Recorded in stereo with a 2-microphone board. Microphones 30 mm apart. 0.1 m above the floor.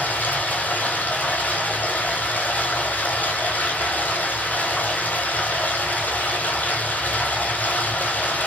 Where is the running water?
70° left (ahead or behind), 0.7 m.